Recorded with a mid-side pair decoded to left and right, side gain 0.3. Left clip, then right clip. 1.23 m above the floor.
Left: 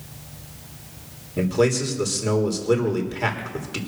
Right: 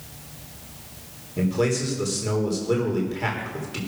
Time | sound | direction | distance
1.4 | a man speaking | 45° left | 3.5 m